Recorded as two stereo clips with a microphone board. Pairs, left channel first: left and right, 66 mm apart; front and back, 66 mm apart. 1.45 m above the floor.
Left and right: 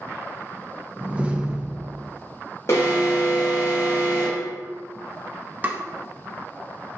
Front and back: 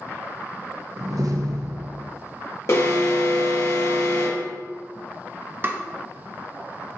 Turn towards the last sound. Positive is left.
turn(degrees=-135)